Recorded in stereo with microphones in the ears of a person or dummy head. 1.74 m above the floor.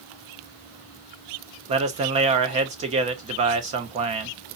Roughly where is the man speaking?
Right.